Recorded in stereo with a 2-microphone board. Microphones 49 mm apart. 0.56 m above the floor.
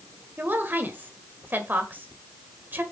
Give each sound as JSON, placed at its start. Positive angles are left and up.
{"t": 0.4, "sound": "a woman speaking", "side_deg": -45, "distance_m": 1.8}